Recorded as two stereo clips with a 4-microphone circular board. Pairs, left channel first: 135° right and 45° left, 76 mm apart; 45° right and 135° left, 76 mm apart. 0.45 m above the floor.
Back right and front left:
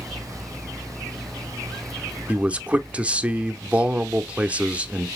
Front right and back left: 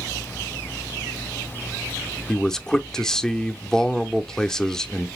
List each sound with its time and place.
2.3 s a man speaking: 25° left, 0.7 m